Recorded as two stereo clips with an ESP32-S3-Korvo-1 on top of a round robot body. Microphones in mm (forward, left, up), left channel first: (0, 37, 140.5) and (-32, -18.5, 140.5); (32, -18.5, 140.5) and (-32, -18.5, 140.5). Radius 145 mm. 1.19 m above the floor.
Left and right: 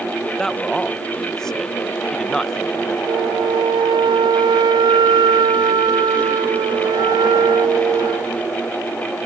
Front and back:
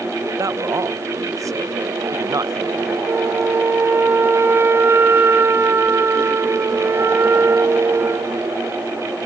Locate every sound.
0.3 s a man speaking: 145° left
3.1 s a flute: 125° right